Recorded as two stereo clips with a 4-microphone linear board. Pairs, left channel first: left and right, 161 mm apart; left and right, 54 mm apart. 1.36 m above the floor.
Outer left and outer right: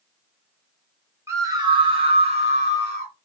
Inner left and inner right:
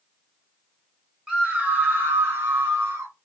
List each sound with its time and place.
1.3 s a scream: 15° right (ahead or behind), 1.1 m; by 3.1 s 50° right (ahead or behind), 2 m